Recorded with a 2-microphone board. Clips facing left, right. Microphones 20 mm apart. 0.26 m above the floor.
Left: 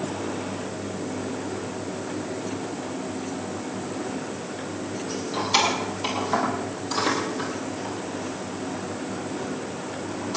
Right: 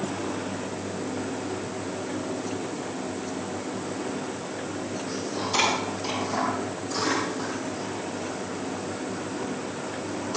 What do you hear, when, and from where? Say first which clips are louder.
5.1 s keys jangling: left 4 dB; 65° left (ahead or behind), 7.5 m; by 10.4 s 15° left (ahead or behind), 6.5 m